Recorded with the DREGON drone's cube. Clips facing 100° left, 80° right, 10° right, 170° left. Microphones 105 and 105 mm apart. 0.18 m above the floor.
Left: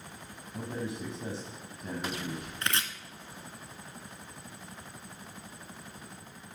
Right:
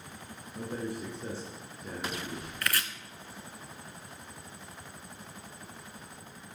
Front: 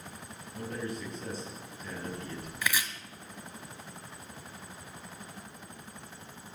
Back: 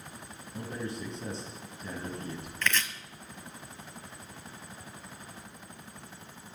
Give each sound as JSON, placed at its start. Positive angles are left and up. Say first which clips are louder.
{"t": 0.5, "sound": "a man speaking", "louder": "even, even", "azimuth_deg": 105, "distance_m": 5.5}
{"t": 2.6, "sound": "chopping", "louder": "even, back 1 dB", "azimuth_deg": 60, "distance_m": 1.2}